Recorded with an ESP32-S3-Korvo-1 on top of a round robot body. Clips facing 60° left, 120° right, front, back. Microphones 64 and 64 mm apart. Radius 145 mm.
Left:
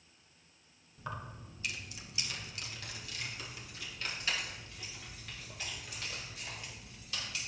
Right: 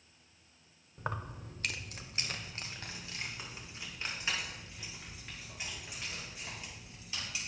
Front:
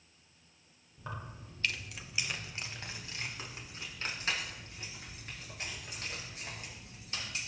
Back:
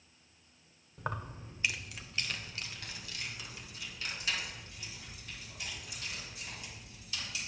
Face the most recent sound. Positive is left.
turn(degrees=-45)